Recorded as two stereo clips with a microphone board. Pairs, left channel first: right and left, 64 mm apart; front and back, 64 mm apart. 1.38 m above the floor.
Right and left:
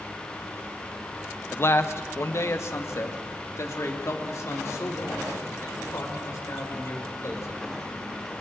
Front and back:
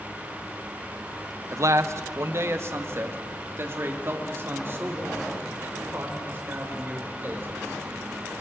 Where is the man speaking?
145° right, 0.8 m; by 8.2 s 125° right, 6 m.